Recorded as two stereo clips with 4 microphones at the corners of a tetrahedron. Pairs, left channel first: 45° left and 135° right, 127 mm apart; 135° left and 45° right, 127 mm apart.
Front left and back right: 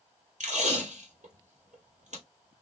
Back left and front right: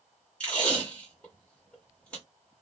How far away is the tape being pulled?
About 1.3 m.